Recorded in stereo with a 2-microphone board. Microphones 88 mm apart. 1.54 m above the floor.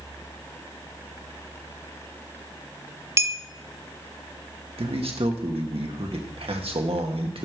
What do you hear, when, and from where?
3.2 s a clink: 30° right (ahead or behind), 0.6 m
4.8 s a man speaking: 80° right, 1.9 m